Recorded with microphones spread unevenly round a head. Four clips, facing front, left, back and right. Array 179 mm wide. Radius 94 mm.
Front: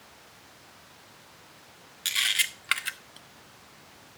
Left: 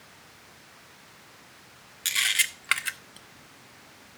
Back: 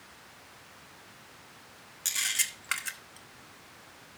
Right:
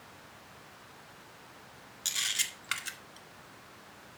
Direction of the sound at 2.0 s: 65° left.